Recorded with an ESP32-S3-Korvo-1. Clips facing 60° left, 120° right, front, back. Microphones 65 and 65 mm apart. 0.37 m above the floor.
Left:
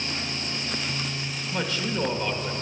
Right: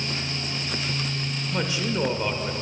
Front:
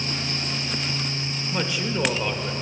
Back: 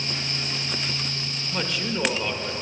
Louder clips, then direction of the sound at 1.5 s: Right 1 dB, front 1 dB; 70° right.